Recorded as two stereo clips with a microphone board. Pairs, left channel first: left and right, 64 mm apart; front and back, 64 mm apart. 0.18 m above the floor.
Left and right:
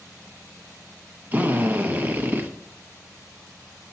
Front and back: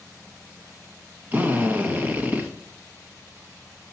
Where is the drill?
135° right, 1.0 m.